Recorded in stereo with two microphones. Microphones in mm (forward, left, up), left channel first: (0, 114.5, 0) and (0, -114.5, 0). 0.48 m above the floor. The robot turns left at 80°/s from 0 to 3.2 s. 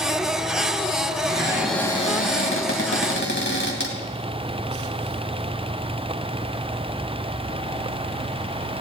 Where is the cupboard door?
145° right, 2.5 m; by 4.0 s 60° left, 2.5 m.